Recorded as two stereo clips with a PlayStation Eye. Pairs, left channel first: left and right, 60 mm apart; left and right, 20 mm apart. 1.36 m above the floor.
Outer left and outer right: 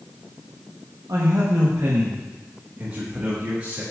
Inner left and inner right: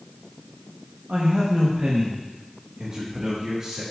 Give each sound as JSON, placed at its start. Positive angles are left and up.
{"t": 1.1, "sound": "a man speaking", "side_deg": -80, "distance_m": 1.1}